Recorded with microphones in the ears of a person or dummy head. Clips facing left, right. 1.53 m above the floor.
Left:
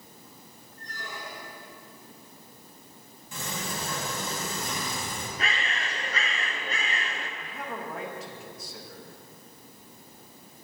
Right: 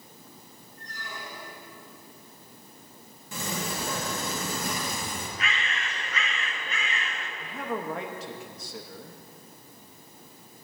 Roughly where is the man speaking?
Right.